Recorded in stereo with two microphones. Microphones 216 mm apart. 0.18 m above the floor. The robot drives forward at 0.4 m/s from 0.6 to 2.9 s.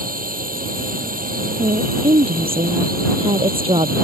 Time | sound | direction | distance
0.0 | a drone | 40° right (ahead or behind) | ?
1.6 | a woman speaking | 25° right (ahead or behind) | ?